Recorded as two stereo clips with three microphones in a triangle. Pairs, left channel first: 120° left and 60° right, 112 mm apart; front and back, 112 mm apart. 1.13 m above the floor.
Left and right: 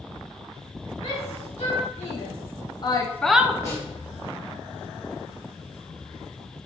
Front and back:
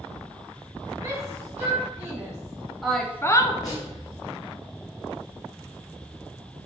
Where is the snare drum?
60° left, 4 m.